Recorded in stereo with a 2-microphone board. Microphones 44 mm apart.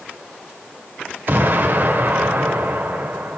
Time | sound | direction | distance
1.3 | an explosion | 50° right (ahead or behind) | 1.4 m